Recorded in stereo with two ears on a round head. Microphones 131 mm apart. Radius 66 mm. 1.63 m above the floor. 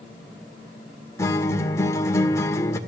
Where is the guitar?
20° left (ahead or behind), 1.7 m.